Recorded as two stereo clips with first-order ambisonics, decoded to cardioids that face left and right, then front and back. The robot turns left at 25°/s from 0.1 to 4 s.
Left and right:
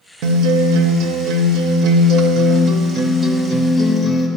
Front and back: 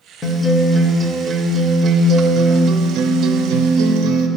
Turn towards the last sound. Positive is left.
turn(degrees=-170)